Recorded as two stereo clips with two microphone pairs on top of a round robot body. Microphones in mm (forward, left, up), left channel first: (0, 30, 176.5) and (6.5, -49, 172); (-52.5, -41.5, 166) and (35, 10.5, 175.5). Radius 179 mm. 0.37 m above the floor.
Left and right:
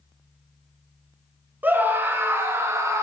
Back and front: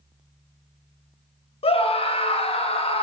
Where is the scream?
150° right, 2 m; by 3.0 s 135° right, 2.5 m.